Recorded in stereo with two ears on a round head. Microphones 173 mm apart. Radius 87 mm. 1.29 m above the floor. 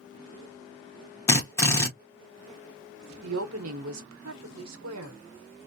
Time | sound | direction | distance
1.3 | a drill | 15° left (ahead or behind) | 1.2 m
3.2 | a woman speaking | 85° right | 0.9 m